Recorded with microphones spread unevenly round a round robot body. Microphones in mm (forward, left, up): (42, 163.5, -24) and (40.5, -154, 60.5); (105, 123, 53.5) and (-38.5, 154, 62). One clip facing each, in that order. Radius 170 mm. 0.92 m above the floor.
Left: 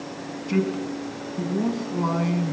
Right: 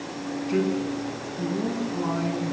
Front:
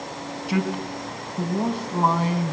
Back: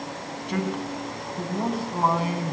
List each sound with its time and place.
0.5 s a man speaking: 70° left, 7 m; by 2.5 s 90° left, 7 m